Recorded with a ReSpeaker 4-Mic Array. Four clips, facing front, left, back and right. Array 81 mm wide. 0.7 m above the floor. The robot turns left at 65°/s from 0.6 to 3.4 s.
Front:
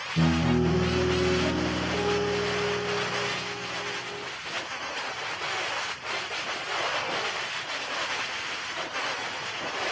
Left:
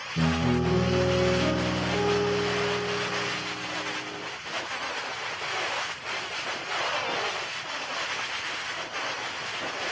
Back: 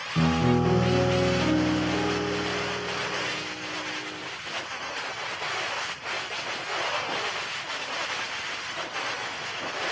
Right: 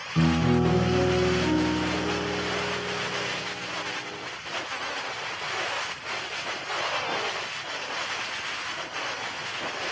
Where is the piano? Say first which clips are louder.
Right 3 dB, back 1 dB; 130° right, 5 m; by 4.3 s 50° left, 5 m.